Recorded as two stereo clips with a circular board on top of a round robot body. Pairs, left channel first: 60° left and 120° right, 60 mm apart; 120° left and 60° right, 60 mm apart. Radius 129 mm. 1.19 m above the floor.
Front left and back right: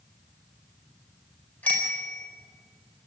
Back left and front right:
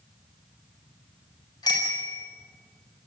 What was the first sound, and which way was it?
A bicycle bell, 120° left.